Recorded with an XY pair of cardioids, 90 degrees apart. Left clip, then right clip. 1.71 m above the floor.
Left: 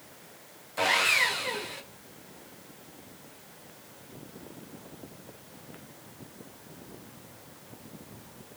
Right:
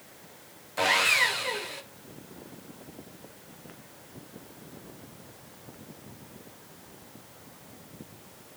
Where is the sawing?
15° right, 0.8 m.